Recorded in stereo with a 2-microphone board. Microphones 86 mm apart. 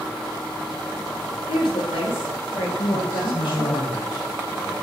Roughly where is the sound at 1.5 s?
Left.